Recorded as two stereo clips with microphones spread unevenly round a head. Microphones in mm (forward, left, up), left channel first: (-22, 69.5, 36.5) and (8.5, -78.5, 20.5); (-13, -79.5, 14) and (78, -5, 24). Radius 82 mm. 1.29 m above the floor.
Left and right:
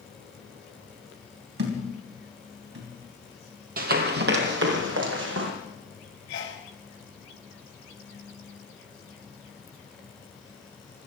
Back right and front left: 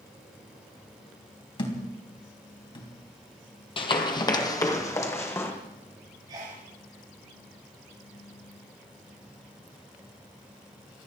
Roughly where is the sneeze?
Left.